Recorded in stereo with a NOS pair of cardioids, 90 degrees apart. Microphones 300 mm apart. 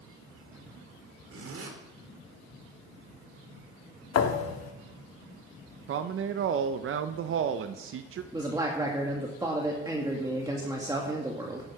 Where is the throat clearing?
I don't hear throat clearing.